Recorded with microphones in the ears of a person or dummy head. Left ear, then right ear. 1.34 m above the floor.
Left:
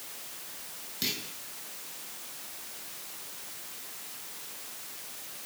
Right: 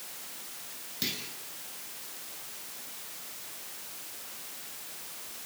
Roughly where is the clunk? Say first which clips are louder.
Left 2 dB; centre.